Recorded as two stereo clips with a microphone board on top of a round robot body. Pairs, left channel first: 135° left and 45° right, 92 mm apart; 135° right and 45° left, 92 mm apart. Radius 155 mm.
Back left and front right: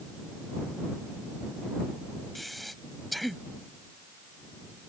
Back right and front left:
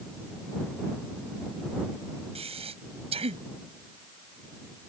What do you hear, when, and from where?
2.4 s breathing: 45° left